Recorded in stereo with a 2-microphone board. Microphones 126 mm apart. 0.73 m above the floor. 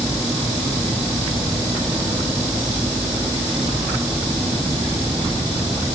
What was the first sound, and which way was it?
Only background noise.